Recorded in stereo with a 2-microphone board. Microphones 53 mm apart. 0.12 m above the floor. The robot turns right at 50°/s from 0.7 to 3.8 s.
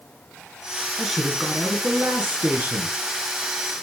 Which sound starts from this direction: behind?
A man speaking, at 1.0 s.